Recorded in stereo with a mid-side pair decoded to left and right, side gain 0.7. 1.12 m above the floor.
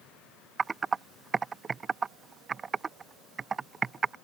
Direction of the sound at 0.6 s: 25° right.